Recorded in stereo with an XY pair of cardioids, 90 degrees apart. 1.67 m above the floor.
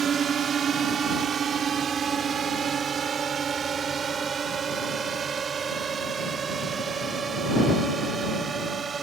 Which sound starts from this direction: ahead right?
A drone, at 0.0 s.